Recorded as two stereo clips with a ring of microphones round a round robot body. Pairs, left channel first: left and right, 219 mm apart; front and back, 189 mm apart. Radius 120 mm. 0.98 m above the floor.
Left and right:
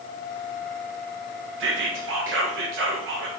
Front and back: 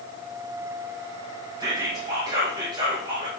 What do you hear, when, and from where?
1.6 s whispering: 110° right, 0.6 m